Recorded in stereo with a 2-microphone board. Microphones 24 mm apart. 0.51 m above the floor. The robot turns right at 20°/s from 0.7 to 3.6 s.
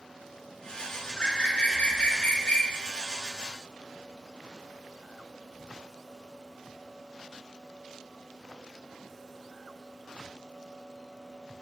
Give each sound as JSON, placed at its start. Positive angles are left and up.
{"t": 1.2, "sound": "a bird", "azimuth_deg": 65, "distance_m": 0.6}